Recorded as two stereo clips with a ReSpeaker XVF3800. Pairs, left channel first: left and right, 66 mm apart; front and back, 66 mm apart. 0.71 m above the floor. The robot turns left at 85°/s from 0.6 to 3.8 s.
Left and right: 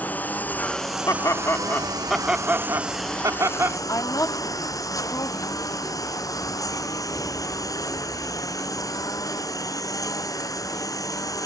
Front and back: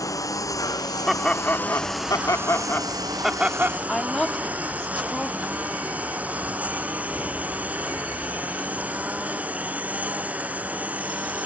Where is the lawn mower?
25° left; by 11.5 s 115° left.